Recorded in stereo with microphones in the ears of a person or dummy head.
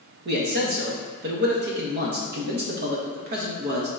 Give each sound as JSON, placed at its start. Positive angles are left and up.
{"t": 0.2, "sound": "a man speaking", "side_deg": -50, "distance_m": 0.6}